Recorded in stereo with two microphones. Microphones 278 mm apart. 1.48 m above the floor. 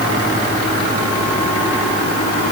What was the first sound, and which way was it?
Only background noise.